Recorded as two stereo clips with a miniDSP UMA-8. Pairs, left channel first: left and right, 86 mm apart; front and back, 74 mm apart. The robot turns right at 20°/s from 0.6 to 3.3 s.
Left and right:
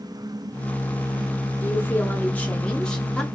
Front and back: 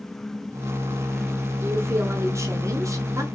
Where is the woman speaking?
140° left, 0.8 m; by 3.2 s 175° left, 0.8 m.